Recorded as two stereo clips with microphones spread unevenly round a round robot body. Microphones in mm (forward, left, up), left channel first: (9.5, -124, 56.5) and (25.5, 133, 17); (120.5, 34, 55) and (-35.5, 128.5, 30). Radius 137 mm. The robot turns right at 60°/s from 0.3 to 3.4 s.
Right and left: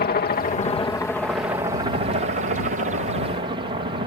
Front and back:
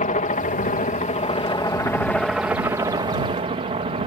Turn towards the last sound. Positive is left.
turn(degrees=130)